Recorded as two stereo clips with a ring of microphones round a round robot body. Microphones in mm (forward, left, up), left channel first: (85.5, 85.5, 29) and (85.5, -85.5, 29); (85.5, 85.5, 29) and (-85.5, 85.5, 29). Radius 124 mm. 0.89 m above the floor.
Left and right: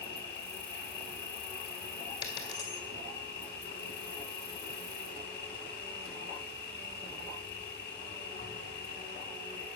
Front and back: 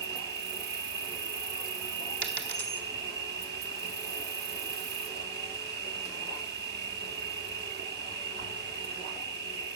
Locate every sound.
0.0 s an insect: 165° left, 0.9 m
2.2 s a dropped coin: 165° left, 1.7 m